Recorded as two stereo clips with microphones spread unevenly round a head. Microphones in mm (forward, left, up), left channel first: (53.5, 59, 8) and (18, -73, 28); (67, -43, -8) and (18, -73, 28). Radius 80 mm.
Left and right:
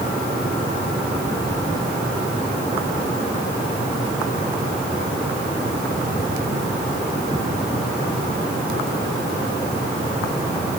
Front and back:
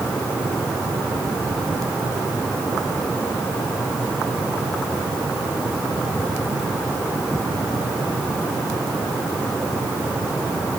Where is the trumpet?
No trumpet in this recording.